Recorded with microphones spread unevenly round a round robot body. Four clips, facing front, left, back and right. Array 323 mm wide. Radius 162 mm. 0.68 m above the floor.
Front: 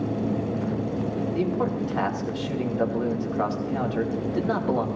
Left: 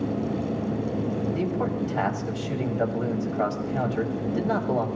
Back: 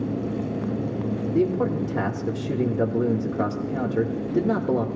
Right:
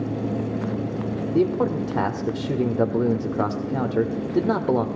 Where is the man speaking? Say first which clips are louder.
Right 5 dB, back 5 dB; 125° right, 1.9 m.